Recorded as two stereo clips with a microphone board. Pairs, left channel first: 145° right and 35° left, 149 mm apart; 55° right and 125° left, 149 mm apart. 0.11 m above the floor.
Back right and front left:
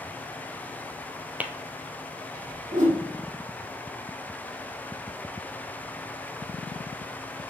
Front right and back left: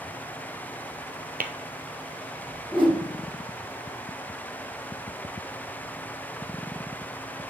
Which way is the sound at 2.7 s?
70° left.